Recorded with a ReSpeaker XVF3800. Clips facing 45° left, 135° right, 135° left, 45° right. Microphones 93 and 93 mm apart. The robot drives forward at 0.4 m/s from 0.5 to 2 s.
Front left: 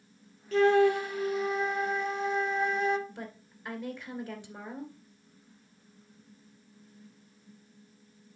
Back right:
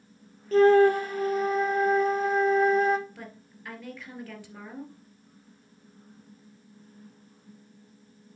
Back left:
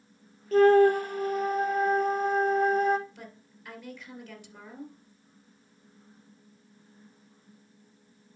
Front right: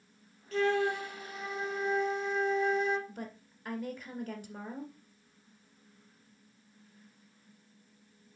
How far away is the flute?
About 0.6 m.